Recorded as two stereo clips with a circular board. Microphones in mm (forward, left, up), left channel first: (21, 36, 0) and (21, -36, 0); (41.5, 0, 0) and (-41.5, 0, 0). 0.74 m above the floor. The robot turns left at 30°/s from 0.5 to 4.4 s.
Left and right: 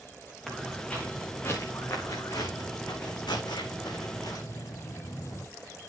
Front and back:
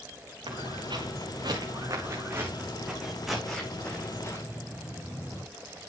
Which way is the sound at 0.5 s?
Straight behind.